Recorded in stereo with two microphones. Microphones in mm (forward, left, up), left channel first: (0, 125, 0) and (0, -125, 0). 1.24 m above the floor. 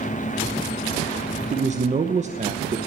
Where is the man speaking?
30° right (ahead or behind), 1.0 m.